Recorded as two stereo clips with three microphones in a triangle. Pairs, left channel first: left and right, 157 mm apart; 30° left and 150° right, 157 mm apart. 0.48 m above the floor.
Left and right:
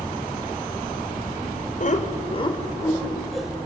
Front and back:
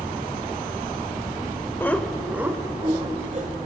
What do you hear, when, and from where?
1.8 s laughter: 105° left, 2 m; by 3.5 s 175° right, 2.5 m